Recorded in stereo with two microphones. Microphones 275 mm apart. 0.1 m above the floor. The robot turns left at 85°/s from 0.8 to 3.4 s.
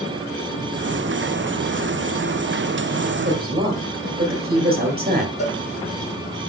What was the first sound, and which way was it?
A woman speaking, 40° right (ahead or behind).